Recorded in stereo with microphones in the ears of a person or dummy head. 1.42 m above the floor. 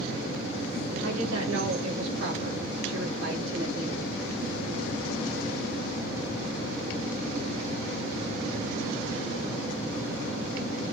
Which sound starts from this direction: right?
A woman speaking, at 1.0 s.